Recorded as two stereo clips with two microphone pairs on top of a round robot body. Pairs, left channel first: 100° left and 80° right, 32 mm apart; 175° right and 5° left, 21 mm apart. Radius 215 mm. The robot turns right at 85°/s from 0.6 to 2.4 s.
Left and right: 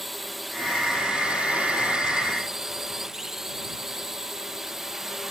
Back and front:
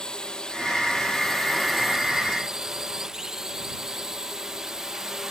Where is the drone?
165° right; by 5.3 s 15° right.